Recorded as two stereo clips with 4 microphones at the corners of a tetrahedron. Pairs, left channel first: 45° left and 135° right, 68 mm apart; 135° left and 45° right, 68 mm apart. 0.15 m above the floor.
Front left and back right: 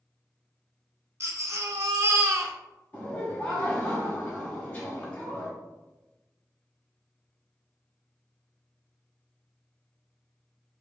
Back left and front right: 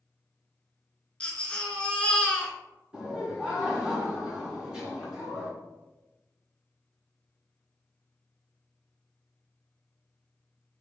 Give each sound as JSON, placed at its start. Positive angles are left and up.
{"t": 1.2, "sound": "a baby crying", "azimuth_deg": -160, "distance_m": 0.6}
{"t": 2.9, "sound": "laughter", "azimuth_deg": 20, "distance_m": 1.4}